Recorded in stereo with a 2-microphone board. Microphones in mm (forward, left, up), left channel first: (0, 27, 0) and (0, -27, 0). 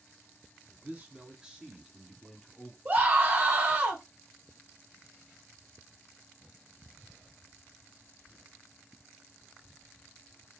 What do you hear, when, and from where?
0.8 s a man speaking: 30° right (ahead or behind), 1.6 m; by 2.8 s 15° left (ahead or behind), 1.4 m
2.9 s a scream: 30° right (ahead or behind), 1.4 m